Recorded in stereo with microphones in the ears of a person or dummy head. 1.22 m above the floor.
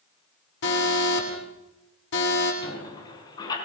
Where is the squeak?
25° left (ahead or behind), 5.5 m.